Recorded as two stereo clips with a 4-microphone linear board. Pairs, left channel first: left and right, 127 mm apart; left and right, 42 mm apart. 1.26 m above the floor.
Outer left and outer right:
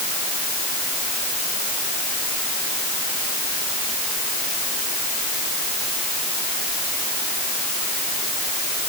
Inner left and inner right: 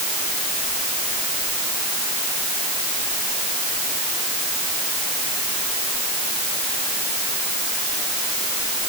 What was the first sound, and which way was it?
Only background noise.